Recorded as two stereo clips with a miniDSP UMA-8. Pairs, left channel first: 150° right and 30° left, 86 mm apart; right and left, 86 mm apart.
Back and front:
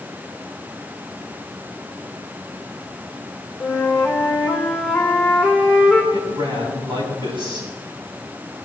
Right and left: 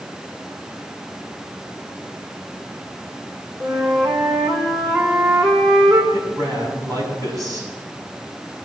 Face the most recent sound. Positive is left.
turn(degrees=45)